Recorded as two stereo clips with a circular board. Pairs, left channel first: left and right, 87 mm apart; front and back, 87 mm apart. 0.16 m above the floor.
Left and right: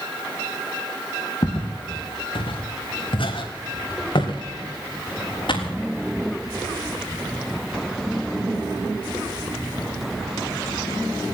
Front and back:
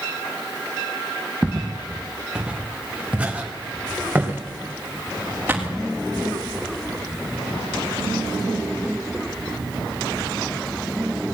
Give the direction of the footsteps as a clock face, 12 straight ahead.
9 o'clock.